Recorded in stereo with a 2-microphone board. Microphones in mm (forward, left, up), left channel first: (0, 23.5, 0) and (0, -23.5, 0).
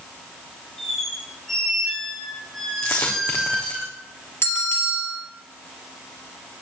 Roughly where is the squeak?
Centre.